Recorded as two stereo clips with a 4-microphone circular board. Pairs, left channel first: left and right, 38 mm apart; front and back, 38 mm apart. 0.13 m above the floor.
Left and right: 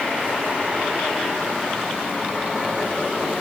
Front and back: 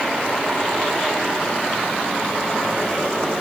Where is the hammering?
No hammering in this recording.